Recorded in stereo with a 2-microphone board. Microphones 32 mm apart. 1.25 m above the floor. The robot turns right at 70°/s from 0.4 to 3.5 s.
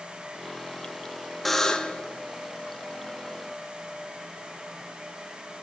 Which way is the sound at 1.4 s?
5° left.